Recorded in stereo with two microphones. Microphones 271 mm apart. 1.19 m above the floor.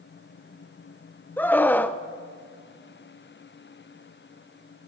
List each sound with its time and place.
1.4 s a scream: 5° left (ahead or behind), 1.0 m